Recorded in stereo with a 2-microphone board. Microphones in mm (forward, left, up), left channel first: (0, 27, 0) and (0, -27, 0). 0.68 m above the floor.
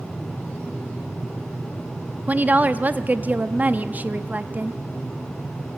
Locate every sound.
2.3 s a woman speaking: 30° right (ahead or behind), 0.7 m